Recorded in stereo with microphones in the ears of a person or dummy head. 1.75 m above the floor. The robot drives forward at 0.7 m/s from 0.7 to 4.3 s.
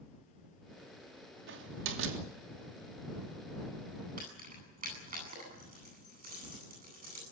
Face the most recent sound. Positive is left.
turn(degrees=-40)  # may be behind; listen again after turning